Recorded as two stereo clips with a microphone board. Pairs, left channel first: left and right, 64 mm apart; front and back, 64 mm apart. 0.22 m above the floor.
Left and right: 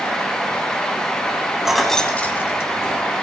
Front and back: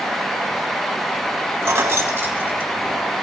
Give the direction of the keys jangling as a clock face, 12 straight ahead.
6 o'clock.